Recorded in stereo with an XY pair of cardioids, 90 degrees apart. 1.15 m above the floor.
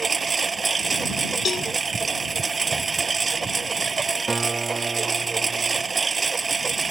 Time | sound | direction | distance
0.0 | a lawn mower | 30° right | ?
1.4 | a cowbell | 50° left | ?
4.3 | a guitar | 25° right | ?